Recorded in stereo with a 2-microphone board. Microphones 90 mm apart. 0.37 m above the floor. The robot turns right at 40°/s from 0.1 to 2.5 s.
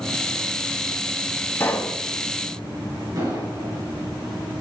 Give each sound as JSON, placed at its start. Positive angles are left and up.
{"t": 1.6, "sound": "a pop", "side_deg": 30, "distance_m": 0.9}
{"t": 3.2, "sound": "an explosion", "side_deg": -40, "distance_m": 5.0}